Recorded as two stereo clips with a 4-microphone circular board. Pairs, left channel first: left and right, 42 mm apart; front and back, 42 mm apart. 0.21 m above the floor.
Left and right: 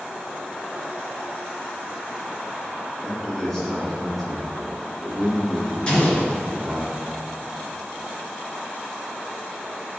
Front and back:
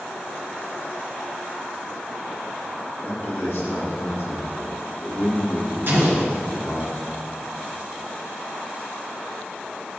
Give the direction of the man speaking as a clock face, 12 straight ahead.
12 o'clock.